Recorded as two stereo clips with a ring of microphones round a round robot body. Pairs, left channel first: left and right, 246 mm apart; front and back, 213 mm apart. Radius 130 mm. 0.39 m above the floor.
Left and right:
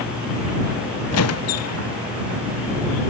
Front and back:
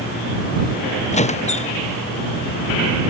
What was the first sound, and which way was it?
A squeak, 60° left.